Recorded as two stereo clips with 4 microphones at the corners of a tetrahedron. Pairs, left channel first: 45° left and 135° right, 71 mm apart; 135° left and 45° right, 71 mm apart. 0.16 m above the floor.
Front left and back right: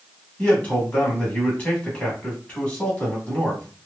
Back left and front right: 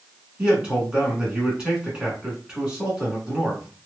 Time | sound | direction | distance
0.4 | a man speaking | 10° left | 1.2 m